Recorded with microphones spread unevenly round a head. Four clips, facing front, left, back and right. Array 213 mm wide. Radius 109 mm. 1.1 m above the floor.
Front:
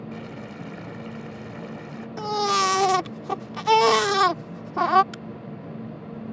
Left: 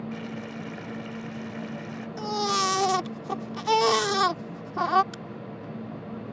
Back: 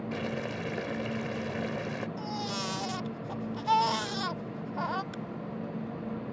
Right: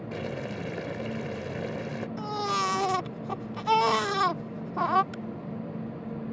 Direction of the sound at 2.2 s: 15° left.